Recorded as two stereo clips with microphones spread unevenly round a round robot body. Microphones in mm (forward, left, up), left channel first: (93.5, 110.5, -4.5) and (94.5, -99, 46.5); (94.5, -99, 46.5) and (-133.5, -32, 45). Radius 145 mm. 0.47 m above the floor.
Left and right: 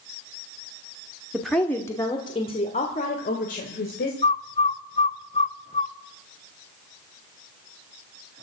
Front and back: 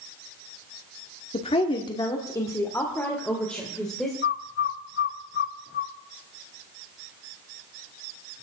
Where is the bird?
30° left, 0.8 m.